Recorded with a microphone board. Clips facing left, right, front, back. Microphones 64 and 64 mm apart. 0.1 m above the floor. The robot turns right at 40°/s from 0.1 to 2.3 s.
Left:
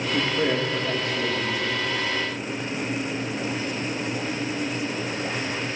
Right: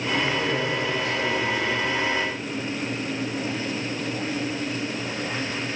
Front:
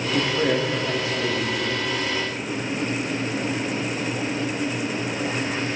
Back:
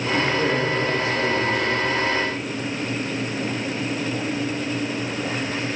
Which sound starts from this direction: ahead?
A man speaking, at 0.1 s.